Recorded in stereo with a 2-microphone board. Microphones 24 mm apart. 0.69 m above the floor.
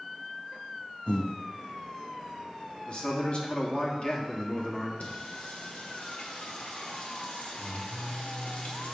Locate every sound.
1.1 s breathing: 70° left (ahead or behind), 0.7 m
2.9 s a man speaking: 45° left (ahead or behind), 1.3 m
5.0 s singing: 70° left (ahead or behind), 1.3 m